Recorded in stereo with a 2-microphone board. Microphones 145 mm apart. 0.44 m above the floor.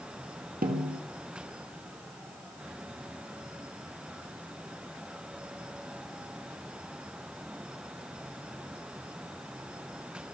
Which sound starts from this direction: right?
A snare drum, at 0.6 s.